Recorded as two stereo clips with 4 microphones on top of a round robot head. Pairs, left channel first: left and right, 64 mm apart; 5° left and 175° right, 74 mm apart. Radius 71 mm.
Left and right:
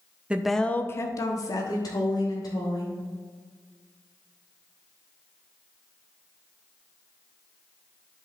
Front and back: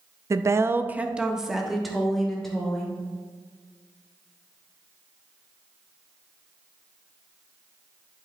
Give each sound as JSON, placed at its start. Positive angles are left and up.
{"t": 0.3, "sound": "a woman speaking", "azimuth_deg": -155, "distance_m": 0.7}